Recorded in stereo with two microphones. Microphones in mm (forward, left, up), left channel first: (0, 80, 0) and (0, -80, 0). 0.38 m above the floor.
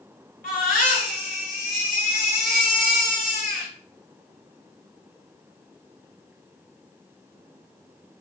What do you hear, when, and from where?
0.4 s a baby crying: 70° left (ahead or behind), 2.0 m